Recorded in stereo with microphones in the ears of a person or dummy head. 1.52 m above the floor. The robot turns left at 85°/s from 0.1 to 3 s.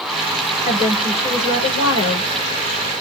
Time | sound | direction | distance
0.7 | a woman speaking | 150° right | 6.5 m